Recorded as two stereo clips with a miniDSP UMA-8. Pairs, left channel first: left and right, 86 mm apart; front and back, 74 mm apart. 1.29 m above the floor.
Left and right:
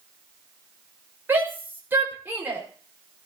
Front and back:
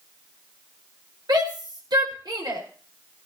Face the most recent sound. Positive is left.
turn(degrees=-155)